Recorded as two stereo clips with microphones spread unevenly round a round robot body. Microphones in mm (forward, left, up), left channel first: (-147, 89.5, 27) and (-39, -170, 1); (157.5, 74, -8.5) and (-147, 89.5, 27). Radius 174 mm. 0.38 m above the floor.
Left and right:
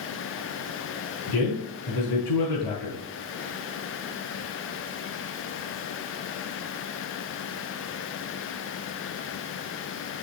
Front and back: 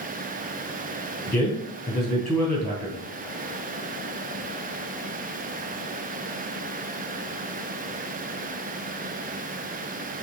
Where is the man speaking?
90° left, 3.5 m.